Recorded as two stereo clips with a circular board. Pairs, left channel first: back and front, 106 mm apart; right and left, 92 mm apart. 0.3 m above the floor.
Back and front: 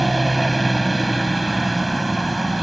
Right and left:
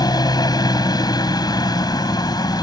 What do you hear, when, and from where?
0.0 s a helicopter: 90° right